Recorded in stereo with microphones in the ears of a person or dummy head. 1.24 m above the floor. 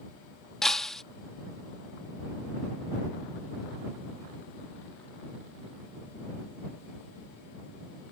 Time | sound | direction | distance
0.6 | breaking glass | 5° left (ahead or behind) | ?